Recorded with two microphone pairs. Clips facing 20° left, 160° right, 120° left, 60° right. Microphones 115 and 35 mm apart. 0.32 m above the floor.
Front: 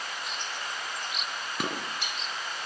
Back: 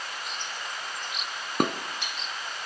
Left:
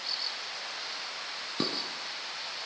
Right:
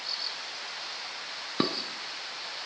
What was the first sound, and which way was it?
Dishes clattering, 125° right.